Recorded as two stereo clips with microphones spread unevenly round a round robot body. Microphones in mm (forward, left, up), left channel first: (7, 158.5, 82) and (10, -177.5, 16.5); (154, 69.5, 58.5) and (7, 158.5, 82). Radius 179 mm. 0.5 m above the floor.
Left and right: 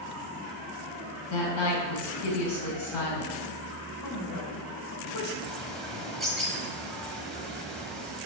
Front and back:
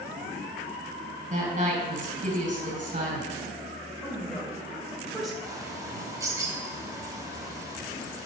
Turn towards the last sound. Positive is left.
turn(degrees=-150)